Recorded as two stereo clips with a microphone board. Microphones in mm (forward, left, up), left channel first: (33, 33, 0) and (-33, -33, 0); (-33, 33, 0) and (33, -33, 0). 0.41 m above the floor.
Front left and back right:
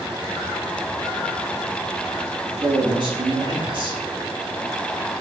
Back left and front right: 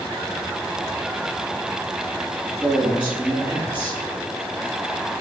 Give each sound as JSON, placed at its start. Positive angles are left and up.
{"t": 2.4, "sound": "a man speaking", "azimuth_deg": -120, "distance_m": 3.0}